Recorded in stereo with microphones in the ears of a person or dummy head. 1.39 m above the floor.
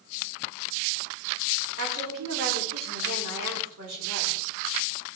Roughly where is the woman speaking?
Right.